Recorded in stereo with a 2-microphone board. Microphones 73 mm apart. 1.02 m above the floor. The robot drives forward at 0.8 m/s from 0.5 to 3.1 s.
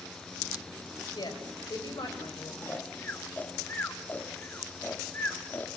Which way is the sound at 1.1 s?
75° left (ahead or behind).